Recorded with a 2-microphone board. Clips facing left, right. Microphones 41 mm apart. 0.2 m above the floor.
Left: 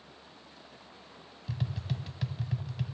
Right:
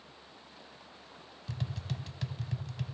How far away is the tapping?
About 0.6 m.